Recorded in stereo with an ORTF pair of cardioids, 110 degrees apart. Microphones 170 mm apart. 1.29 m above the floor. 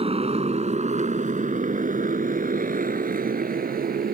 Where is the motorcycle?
40° right; by 4.1 s 70° right.